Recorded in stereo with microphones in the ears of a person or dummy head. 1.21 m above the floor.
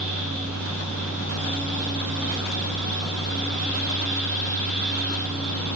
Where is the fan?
5° left (ahead or behind), 6.5 m.